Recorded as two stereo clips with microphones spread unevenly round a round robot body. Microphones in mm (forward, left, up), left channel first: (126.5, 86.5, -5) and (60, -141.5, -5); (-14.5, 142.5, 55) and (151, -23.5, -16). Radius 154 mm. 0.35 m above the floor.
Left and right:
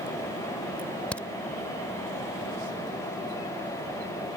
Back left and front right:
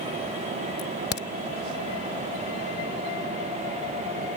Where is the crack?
150° left.